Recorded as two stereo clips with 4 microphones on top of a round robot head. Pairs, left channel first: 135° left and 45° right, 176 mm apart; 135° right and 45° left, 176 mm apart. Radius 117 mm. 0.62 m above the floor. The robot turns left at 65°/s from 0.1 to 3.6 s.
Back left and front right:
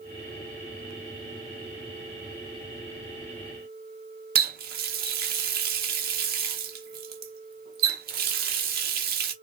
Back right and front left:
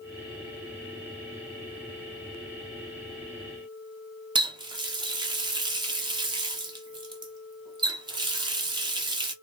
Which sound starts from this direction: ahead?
A running tap, at 4.3 s.